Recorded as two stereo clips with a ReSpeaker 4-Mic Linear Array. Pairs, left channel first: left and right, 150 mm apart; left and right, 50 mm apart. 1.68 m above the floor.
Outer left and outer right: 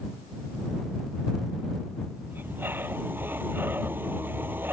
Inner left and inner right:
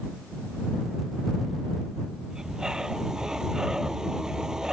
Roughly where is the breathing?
Centre.